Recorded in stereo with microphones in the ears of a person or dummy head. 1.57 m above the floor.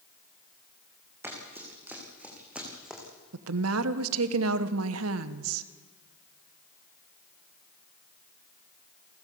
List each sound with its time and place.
1.2 s running footsteps: 15° right (ahead or behind), 5.5 m; by 3.0 s 5° right (ahead or behind), 5.5 m
3.3 s a woman speaking: 90° right, 1.1 m